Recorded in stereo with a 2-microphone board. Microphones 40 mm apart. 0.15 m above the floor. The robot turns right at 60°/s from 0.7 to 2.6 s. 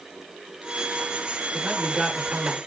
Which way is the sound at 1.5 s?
Straight behind.